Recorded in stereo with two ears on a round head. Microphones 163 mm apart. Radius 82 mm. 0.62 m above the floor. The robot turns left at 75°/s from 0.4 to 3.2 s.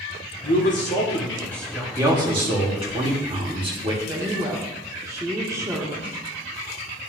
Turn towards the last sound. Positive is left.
turn(degrees=-15)  # may be behind; listen again after turning